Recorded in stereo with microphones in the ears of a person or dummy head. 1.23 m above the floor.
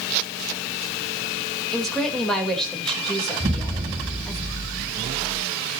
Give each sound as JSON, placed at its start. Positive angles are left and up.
{"t": 1.7, "sound": "a woman speaking", "side_deg": 5, "distance_m": 4.5}
{"t": 3.4, "sound": "an explosion", "side_deg": -15, "distance_m": 4.0}